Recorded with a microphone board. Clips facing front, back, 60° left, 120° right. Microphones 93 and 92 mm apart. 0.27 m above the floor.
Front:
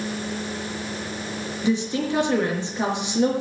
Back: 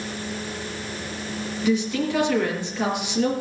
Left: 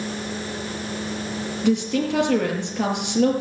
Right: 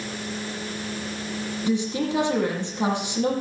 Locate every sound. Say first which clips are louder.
1.6 s a woman speaking: back 1 dB, left 4 dB; 65° left, 6 m